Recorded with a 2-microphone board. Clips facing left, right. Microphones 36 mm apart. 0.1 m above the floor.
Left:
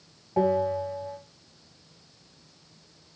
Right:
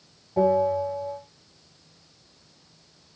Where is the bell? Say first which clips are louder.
Right 3 dB; 30° left (ahead or behind), 1.6 m.